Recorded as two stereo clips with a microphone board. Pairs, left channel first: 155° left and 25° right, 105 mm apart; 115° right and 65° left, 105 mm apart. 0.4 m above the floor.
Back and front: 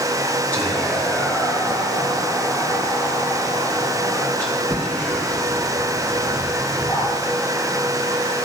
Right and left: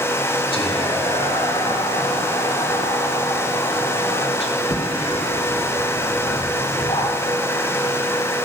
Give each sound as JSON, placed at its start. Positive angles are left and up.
{"t": 0.5, "sound": "whispering", "azimuth_deg": -130, "distance_m": 2.5}